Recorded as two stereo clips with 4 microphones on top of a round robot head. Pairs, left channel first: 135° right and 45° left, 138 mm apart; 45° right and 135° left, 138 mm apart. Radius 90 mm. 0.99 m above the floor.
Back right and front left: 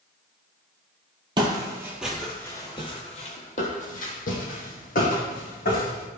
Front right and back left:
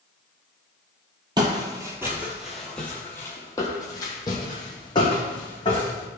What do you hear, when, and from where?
1.4 s footsteps: 90° left, 1.1 m; by 6.1 s 105° right, 3 m